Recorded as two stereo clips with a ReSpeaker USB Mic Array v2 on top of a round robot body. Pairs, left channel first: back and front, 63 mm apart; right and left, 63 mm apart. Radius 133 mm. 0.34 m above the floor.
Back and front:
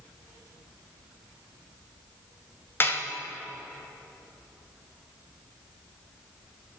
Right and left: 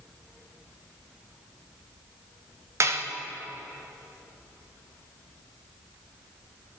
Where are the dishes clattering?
130° left, 1.7 m.